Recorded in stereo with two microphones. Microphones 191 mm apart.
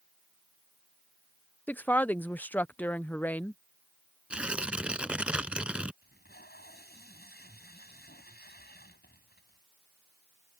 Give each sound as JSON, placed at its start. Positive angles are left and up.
{"t": 1.7, "sound": "a woman speaking", "side_deg": 10}
{"t": 4.3, "sound": "tearing paper", "side_deg": -5}
{"t": 6.0, "sound": "tape being pulled", "side_deg": 55}